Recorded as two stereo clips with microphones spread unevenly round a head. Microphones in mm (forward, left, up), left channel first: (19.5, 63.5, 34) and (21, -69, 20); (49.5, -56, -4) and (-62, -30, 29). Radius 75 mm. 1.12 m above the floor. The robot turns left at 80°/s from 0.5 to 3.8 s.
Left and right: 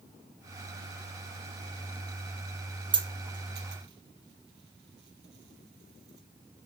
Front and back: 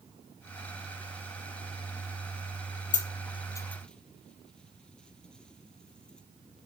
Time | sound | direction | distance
2.9 | a dropped coin | 30° right | 3 m